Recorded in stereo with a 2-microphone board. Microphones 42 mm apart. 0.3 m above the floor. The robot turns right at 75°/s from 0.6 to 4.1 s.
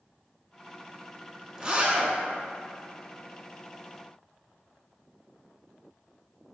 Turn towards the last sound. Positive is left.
turn(degrees=25)